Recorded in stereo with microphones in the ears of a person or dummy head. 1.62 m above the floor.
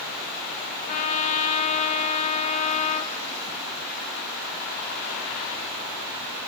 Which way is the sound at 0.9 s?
45° left (ahead or behind).